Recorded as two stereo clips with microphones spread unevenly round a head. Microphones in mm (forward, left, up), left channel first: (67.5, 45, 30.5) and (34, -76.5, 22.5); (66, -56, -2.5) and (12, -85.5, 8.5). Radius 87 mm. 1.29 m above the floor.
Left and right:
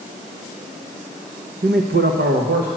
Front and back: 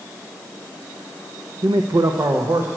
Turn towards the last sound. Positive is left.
turn(degrees=-100)